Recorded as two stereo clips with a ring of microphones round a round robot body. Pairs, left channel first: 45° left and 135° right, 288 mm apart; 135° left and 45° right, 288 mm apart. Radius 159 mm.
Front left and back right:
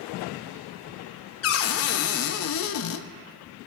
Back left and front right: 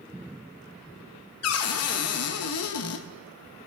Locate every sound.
1.4 s a cupboard door: 90° left, 0.6 m